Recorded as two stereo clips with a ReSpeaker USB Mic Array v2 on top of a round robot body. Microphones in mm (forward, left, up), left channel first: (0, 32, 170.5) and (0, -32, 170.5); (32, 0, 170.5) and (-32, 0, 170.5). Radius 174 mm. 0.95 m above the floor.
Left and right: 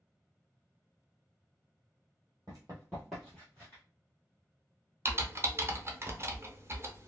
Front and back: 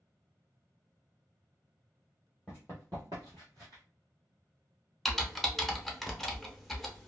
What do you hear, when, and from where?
2.5 s running footsteps: 105° right, 1.0 m; by 3.8 s 145° left, 1.2 m
5.0 s typing on a keyboard: 85° right, 1.0 m